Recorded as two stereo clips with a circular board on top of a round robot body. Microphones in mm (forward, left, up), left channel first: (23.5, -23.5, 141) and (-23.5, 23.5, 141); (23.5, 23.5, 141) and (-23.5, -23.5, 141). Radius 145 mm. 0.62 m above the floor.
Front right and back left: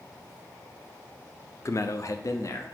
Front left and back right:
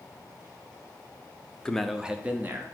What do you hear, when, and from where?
1.6 s a man speaking: 30° right, 0.8 m; by 2.8 s 80° right, 1.2 m